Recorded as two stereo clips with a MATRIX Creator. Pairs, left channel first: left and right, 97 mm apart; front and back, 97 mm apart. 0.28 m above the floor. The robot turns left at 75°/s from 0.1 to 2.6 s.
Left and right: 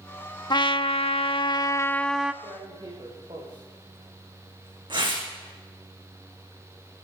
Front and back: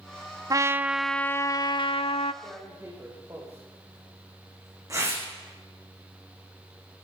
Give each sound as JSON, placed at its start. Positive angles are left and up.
{"t": 0.5, "sound": "a trumpet", "azimuth_deg": 130, "distance_m": 0.5}
{"t": 2.4, "sound": "tearing paper", "azimuth_deg": -110, "distance_m": 5.0}